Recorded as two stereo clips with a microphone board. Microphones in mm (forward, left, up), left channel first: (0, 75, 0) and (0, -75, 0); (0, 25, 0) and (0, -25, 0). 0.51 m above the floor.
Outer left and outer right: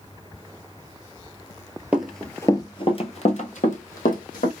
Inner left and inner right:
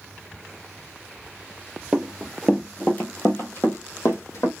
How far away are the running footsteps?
About 0.6 m.